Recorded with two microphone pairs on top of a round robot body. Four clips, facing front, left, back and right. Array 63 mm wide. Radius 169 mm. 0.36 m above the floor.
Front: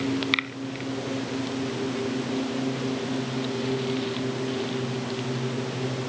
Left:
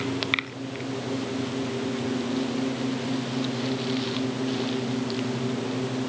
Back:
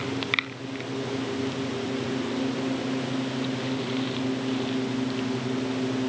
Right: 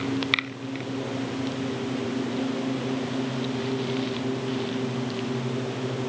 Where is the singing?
No singing in this recording.